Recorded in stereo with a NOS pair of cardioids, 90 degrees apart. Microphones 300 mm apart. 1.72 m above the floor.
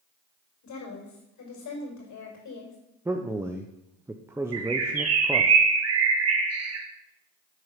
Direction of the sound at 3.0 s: 10° right.